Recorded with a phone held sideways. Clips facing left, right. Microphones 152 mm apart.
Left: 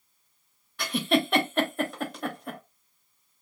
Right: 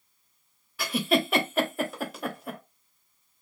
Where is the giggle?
5° right (ahead or behind), 0.5 m.